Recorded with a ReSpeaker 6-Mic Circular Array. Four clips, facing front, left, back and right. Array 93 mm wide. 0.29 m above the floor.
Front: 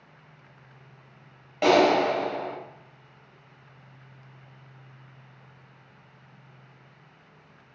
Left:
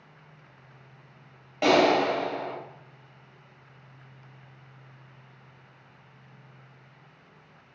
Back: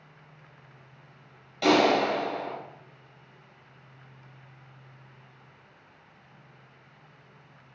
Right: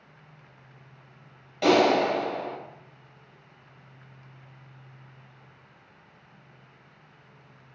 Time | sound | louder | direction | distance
1.6 | a clap | even, front 2 dB | 30° left | 1.0 m